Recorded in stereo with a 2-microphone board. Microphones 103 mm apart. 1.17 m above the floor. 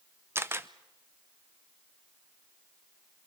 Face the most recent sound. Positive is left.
turn(degrees=-25)  # may be behind; listen again after turning